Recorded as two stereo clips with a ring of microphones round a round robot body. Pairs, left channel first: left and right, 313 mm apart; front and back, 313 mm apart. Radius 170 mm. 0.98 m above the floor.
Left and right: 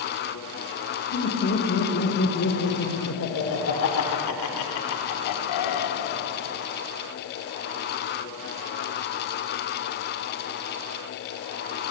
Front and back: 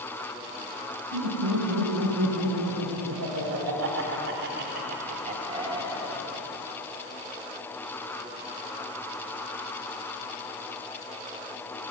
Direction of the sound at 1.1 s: 150° left.